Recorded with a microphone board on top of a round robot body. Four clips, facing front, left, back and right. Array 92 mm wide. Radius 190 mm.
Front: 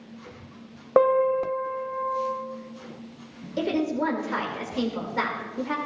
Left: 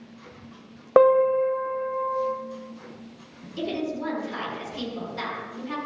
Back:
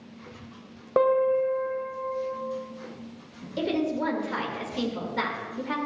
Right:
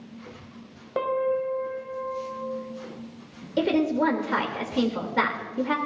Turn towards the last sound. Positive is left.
turn(degrees=-75)